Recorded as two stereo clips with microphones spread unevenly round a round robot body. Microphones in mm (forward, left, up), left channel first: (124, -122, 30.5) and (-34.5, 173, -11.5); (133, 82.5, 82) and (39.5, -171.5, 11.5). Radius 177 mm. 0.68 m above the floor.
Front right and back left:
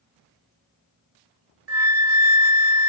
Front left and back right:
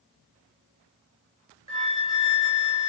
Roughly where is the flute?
Left.